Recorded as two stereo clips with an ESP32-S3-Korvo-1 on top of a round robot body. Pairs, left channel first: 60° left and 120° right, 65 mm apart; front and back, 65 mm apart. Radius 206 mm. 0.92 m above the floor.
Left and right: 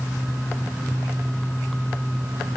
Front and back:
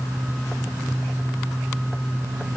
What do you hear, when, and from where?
Only background noise.